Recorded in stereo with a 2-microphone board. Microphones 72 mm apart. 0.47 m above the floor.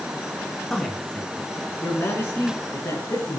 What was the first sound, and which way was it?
A man speaking, 5° left (ahead or behind).